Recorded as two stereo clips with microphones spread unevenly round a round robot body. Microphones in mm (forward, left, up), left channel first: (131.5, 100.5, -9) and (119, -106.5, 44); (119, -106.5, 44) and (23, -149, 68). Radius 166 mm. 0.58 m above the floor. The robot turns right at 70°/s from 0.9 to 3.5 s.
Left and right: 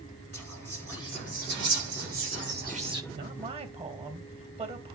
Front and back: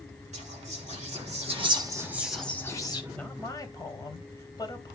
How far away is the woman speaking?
About 3 m.